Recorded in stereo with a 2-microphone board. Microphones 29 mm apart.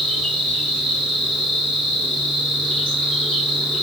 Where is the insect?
30° left (ahead or behind), 1.4 m.